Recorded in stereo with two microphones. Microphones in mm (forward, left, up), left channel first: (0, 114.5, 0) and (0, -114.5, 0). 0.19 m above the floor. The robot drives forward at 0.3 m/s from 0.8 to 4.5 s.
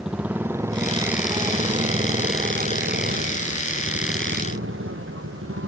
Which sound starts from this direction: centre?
A motorcycle, at 0.0 s.